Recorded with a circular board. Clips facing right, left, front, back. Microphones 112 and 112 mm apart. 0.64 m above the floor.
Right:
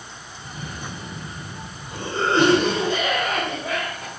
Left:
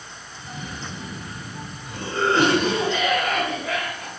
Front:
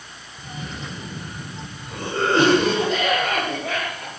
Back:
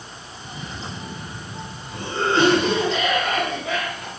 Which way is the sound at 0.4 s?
30° right.